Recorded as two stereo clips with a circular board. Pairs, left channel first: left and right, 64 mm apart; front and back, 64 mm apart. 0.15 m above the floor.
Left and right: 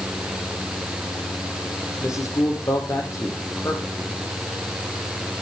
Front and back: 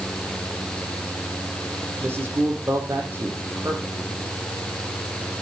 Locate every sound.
2.0 s a man speaking: 125° left, 6.5 m